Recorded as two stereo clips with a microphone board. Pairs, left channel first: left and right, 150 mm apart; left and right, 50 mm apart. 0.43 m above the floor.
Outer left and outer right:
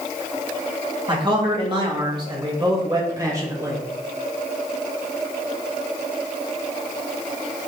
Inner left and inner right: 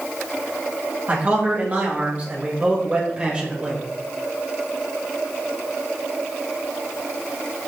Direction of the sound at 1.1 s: 35° right (ahead or behind).